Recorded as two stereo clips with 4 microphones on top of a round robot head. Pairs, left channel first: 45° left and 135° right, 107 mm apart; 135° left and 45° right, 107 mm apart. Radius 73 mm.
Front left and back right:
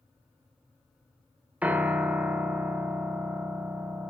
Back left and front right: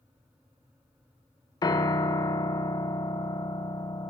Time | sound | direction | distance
1.6 | a piano | 155° left | 0.7 m